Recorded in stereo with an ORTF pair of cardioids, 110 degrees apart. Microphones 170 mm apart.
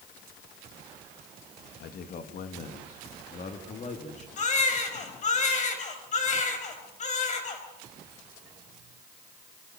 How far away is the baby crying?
About 4 m.